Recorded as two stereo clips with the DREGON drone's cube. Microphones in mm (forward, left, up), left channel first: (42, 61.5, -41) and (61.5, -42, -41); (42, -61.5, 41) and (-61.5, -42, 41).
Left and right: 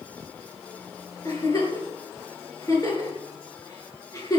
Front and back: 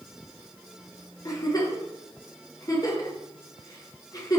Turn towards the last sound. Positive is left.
turn(degrees=45)